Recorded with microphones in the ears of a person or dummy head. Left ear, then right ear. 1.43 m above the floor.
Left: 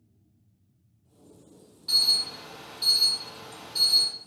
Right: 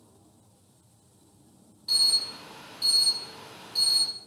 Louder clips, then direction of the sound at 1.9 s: Left 1 dB; centre (ahead or behind).